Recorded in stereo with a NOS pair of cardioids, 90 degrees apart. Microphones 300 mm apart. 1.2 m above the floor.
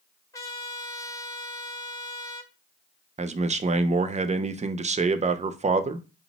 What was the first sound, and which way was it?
A trumpet, 10° left.